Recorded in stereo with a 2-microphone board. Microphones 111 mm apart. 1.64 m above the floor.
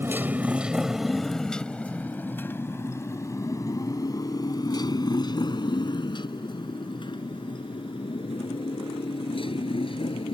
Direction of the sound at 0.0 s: 20° right (ahead or behind).